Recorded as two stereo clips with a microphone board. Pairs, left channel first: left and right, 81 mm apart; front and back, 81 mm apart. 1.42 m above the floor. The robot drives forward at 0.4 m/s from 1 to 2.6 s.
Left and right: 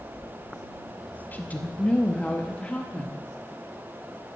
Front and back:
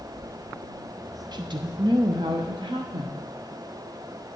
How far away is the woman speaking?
About 0.5 m.